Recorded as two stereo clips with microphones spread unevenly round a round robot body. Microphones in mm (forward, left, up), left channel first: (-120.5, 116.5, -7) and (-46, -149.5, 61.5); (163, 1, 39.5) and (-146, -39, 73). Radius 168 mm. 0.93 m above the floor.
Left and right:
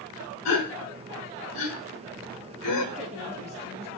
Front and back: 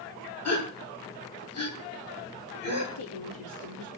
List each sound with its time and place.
0.5 s a gasp: 50° left, 3.5 m
3.0 s a woman speaking: 5° right, 2.5 m